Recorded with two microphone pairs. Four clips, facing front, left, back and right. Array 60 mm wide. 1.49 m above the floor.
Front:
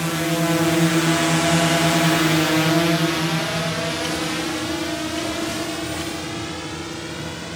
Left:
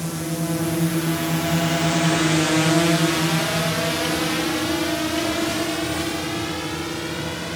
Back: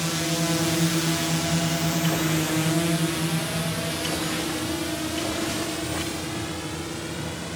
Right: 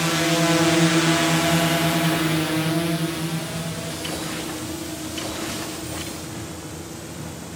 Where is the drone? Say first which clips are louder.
Right 6 dB, front 5 dB; 75° right; by 7.6 s 70° left.